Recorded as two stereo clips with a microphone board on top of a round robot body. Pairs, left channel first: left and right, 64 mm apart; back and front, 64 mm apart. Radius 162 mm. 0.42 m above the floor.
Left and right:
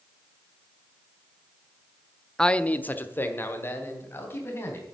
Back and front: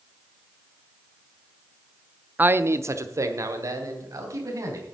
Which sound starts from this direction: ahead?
A man speaking, at 2.4 s.